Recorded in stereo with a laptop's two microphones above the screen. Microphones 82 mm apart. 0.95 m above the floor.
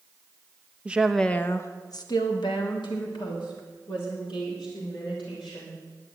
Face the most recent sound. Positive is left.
turn(degrees=85)